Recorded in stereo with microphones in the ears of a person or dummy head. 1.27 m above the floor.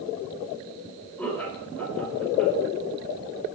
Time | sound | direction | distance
1.2 | laughter | 5° left (ahead or behind) | 4.5 m